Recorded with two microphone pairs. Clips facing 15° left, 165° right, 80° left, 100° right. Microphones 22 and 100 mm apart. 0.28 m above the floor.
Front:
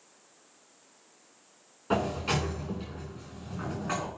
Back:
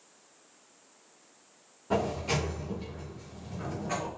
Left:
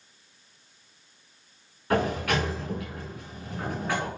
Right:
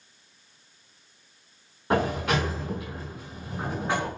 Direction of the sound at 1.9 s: 40° right.